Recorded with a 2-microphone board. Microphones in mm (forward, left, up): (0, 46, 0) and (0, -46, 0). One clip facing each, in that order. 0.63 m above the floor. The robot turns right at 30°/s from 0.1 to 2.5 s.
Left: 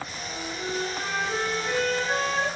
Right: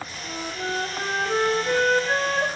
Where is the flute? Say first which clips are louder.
Right 4 dB; 120° right, 0.6 m; by 2.5 s 55° right, 0.6 m.